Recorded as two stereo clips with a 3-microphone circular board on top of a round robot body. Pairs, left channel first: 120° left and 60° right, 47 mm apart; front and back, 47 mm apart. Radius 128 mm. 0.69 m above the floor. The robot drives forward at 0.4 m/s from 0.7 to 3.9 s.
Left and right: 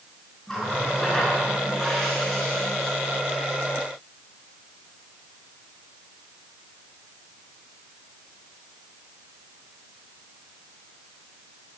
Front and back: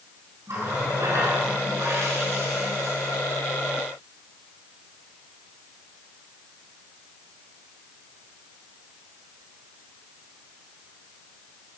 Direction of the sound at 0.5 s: 160° right.